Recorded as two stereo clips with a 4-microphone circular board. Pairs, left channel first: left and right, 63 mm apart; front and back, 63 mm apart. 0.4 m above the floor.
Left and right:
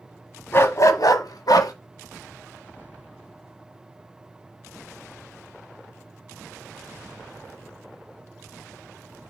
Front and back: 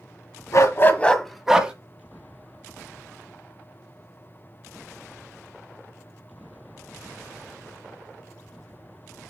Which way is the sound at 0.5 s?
35° left.